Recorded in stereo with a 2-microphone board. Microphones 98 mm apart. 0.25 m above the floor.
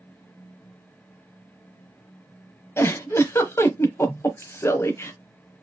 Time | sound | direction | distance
2.8 | a giggle | 25° left (ahead or behind) | 1.0 m